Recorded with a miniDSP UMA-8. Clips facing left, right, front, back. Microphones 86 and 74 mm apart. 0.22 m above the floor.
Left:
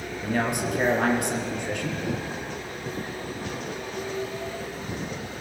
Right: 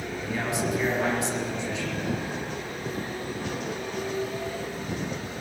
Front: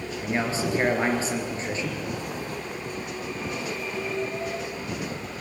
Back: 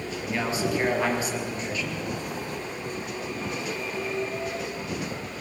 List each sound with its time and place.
0.2 s a man speaking: 60° left, 3.5 m